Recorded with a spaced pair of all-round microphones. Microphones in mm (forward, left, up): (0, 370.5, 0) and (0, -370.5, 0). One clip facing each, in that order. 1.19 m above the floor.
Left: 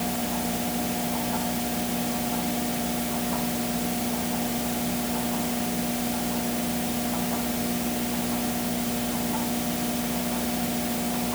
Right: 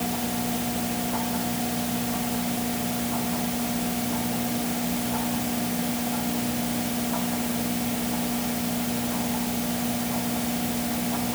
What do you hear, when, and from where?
Only background noise.